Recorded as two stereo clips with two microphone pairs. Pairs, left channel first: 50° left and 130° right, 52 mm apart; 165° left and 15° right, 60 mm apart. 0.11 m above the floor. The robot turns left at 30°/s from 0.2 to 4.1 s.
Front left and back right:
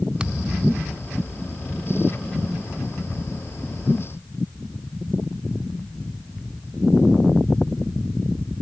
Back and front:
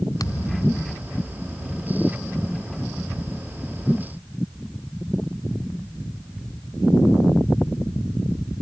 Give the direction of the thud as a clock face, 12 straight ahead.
7 o'clock.